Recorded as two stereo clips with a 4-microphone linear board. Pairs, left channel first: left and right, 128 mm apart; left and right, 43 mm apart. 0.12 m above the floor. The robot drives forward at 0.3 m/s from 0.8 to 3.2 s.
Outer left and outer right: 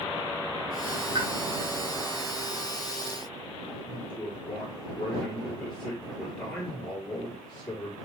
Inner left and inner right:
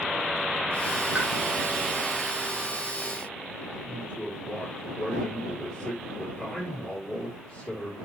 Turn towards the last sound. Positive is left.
turn(degrees=10)  # may be behind; listen again after turning